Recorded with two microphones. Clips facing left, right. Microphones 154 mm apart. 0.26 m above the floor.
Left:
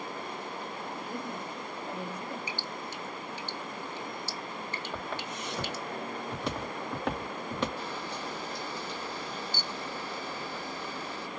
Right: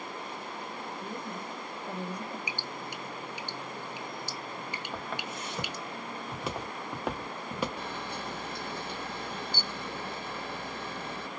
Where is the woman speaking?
5° left (ahead or behind), 1.0 m.